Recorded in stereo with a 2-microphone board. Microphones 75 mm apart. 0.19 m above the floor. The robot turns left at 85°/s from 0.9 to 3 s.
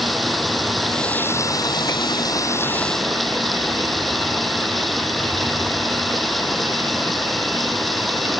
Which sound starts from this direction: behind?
Running water, at 0.0 s.